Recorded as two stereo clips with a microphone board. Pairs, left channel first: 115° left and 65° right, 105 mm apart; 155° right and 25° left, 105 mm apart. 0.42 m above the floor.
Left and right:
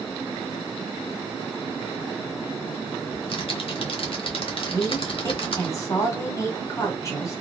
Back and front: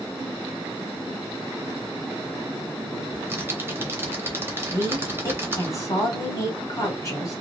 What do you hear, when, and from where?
3.1 s typing on a keyboard: 90° left, 0.8 m
4.7 s a woman speaking: 160° left, 1.2 m